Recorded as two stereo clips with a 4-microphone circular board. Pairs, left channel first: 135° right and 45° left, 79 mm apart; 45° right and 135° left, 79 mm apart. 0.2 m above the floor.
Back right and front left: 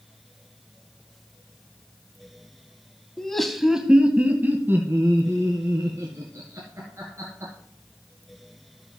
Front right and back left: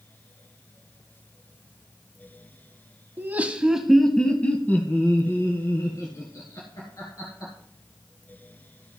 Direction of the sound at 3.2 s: 150° left.